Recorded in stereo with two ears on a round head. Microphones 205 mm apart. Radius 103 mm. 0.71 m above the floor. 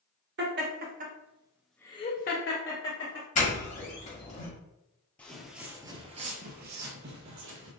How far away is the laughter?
About 1.2 m.